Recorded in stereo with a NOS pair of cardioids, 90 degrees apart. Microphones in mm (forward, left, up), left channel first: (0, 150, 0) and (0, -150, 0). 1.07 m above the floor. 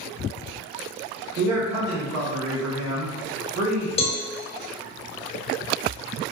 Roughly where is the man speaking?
Ahead right.